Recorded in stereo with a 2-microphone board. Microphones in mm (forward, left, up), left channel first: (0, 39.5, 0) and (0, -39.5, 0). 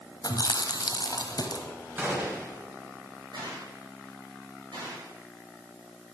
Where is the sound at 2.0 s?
25° right (ahead or behind), 3 m.